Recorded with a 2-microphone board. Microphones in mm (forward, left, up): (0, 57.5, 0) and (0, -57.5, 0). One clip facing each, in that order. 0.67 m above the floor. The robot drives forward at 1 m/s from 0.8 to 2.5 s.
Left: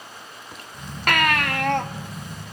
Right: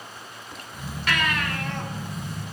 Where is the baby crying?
65° left (ahead or behind), 1.1 m; by 1.9 s 70° left (ahead or behind), 1.0 m.